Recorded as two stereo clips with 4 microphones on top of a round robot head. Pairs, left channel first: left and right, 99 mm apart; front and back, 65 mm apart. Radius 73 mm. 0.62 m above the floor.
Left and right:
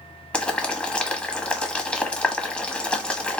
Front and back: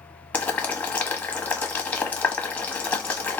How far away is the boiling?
About 1.0 m.